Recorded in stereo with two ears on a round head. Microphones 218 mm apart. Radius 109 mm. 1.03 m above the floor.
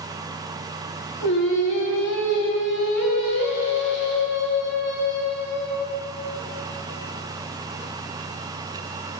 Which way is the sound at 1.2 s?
50° left (ahead or behind).